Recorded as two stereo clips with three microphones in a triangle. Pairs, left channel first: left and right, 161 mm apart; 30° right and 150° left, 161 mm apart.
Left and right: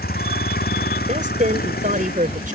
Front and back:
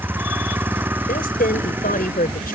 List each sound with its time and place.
0.0 s a vehicle: 70° left
1.1 s a woman speaking: 55° right